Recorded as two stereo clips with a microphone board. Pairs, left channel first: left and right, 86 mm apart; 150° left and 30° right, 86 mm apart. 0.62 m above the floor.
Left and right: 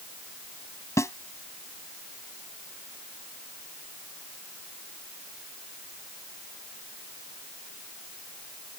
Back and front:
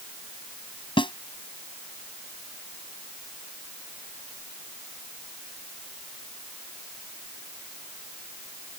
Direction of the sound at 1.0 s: 145° left.